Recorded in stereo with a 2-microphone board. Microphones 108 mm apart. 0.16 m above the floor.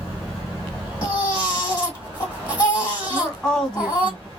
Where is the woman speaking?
5° left (ahead or behind), 1.0 m.